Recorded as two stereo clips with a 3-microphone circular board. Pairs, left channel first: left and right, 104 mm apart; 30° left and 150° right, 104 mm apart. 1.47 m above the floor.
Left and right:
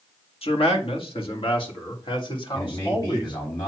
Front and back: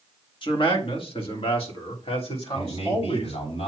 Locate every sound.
0.4 s a man speaking: 65° left, 2.0 m; by 3.5 s 45° left, 4.5 m
2.5 s a man speaking: 35° left, 7 m